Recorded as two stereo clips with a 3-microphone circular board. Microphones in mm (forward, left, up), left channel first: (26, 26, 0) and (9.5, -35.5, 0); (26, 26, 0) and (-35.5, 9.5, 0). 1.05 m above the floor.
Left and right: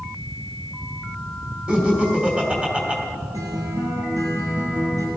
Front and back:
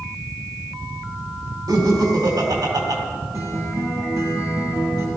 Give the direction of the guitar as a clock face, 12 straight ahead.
4 o'clock.